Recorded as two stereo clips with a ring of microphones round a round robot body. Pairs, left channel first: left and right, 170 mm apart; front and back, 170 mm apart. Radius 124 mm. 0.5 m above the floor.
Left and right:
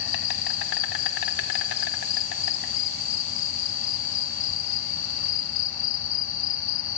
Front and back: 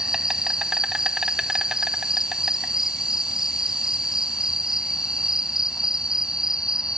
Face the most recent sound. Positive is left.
turn(degrees=95)